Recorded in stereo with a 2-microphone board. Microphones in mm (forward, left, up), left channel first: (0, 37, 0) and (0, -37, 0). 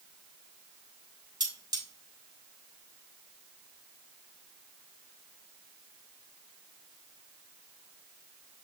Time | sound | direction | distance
1.4 | cutlery clinking | 70° right (ahead or behind) | 4.5 m